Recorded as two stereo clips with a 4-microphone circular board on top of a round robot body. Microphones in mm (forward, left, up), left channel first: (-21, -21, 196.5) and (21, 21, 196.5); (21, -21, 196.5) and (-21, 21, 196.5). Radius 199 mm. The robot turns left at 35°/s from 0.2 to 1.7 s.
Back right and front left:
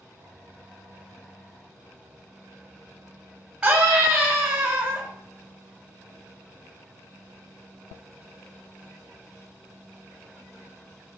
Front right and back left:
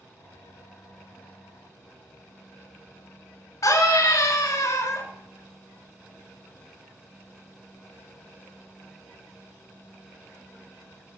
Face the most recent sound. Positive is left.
turn(degrees=-30)